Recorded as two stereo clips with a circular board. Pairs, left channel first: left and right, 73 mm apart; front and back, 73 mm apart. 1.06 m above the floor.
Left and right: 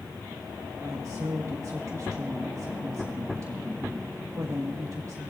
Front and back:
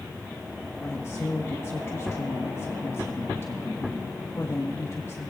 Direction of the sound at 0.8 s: 50° right.